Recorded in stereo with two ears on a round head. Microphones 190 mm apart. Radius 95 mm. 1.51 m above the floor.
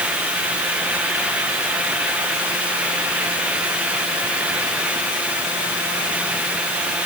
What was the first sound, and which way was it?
Only background noise.